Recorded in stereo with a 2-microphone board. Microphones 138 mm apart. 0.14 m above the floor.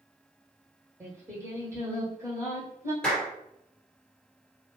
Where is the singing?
20° right (ahead or behind), 1.6 m.